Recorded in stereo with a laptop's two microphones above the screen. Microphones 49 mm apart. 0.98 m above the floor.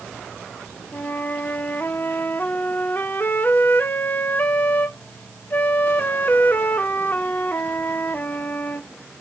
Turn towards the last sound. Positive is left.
turn(degrees=40)  # may be behind; listen again after turning